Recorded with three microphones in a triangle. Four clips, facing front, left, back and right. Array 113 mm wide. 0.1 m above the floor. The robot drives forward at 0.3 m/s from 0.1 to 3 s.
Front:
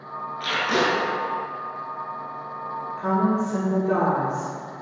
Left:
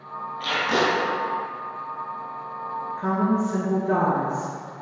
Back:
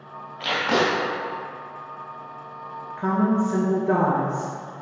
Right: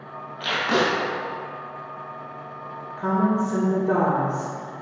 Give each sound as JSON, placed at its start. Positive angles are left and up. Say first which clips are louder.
{"t": 0.4, "sound": "tape being pulled", "louder": "right 1 dB, back 1 dB", "azimuth_deg": -155, "distance_m": 1.2}
{"t": 3.0, "sound": "a woman speaking", "louder": "right 1 dB, back 1 dB", "azimuth_deg": -175, "distance_m": 1.4}